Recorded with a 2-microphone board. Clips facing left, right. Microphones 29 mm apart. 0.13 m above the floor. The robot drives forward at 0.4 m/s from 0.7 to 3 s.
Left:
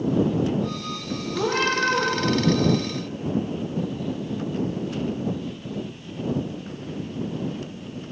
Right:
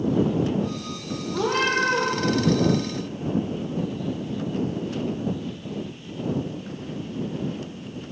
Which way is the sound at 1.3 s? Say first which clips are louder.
Right 1 dB; 40° right (ahead or behind).